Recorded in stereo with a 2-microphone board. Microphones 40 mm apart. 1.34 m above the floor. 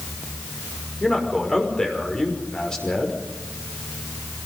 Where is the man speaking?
20° left (ahead or behind), 5.5 m.